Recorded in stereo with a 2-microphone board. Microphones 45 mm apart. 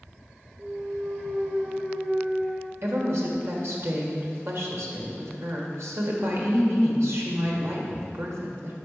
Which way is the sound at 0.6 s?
45° right (ahead or behind).